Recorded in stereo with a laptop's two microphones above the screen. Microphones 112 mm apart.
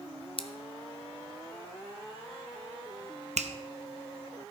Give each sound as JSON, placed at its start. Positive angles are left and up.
{"t": 0.4, "sound": "scissors", "side_deg": 55, "distance_m": 0.5}
{"t": 3.4, "sound": "a finger snap", "side_deg": -85, "distance_m": 0.7}